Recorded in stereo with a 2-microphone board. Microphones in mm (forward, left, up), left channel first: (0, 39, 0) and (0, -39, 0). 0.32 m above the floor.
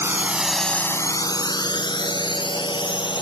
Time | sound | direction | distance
0.0 | a drone | 30° right (ahead or behind) | ?